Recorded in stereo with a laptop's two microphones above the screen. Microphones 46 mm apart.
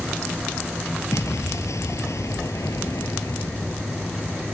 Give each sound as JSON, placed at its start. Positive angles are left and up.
{"t": 1.1, "sound": "an explosion", "side_deg": 80}